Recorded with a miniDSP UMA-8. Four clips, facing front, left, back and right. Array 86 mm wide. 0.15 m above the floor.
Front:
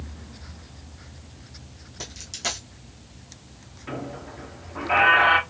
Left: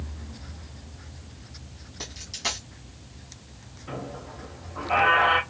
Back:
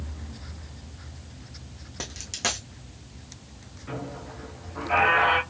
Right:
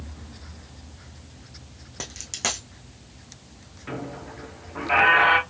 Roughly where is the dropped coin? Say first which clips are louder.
Right 3 dB, back 2 dB; behind right.